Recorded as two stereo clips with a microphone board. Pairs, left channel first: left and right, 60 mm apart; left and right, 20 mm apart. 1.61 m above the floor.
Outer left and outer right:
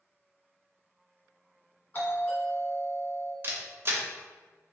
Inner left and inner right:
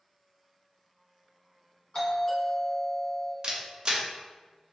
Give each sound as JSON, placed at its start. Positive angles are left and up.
{"t": 1.9, "sound": "a doorbell", "side_deg": 35, "distance_m": 1.3}
{"t": 3.4, "sound": "a camera shutter", "side_deg": -40, "distance_m": 0.6}